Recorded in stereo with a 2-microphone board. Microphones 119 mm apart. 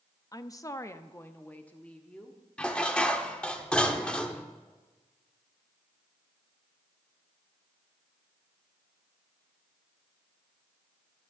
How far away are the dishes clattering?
About 1.0 m.